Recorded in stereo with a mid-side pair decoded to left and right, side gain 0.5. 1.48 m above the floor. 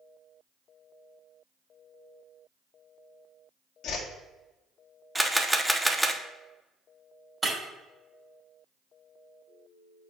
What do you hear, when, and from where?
3.8 s a whoosh: 65° left, 1.4 m
5.2 s a camera shutter: 5° right, 0.8 m
7.4 s breaking glass: 30° right, 2.5 m